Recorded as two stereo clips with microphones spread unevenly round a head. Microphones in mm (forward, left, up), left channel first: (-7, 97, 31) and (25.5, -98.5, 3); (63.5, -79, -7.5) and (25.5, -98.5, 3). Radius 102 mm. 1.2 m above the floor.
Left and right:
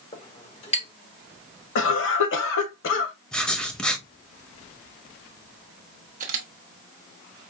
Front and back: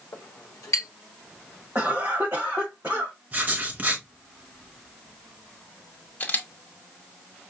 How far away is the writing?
About 0.6 m.